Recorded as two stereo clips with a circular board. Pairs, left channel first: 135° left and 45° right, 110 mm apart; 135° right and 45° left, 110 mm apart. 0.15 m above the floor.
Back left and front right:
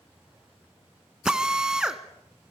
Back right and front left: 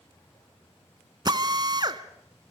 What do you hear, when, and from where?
1.2 s a drill: 35° left, 1.1 m